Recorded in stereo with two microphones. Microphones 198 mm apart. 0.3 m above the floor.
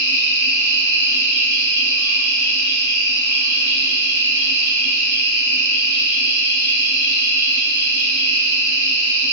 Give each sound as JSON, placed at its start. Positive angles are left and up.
{"t": 0.0, "sound": "an insect", "side_deg": -70, "distance_m": 1.4}